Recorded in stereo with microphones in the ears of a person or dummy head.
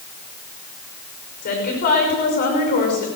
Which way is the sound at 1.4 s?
50° left (ahead or behind).